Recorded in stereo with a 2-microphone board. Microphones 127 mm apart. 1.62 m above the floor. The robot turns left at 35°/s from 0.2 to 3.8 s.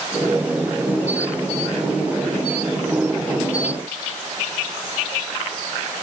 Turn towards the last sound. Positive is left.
No sound to turn to.